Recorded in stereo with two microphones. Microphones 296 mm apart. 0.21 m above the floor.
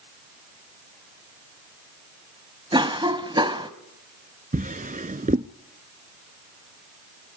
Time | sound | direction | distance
2.7 | a cough | 15° right (ahead or behind) | 1.1 m
4.5 | a drawer | 25° right (ahead or behind) | 0.7 m